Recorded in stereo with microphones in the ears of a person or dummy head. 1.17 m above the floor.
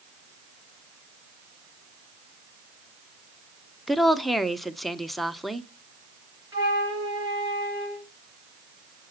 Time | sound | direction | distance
3.9 | a woman speaking | centre (ahead or behind) | 0.6 m
6.5 | a flute | 20° right (ahead or behind) | 0.9 m